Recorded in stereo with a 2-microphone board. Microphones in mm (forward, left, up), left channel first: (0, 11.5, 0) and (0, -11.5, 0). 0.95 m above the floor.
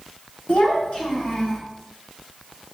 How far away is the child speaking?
About 1.7 m.